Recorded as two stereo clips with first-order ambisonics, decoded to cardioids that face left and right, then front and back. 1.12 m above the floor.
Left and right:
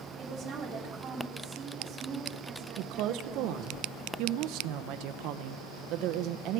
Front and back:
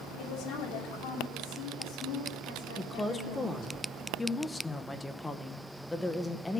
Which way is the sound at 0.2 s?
30° right.